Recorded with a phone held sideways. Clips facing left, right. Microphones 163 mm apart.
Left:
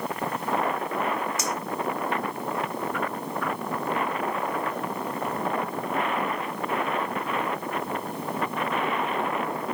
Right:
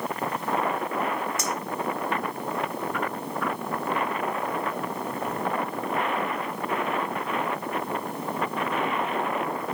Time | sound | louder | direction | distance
1.4 | a clink | even | 55° right (ahead or behind) | 1.7 m